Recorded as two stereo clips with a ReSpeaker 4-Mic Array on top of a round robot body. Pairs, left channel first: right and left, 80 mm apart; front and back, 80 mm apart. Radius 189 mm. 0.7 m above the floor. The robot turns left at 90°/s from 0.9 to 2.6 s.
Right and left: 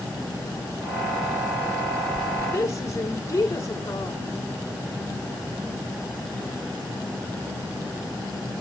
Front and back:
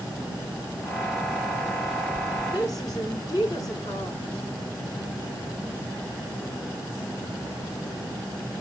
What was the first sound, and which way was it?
A woman speaking, 25° right.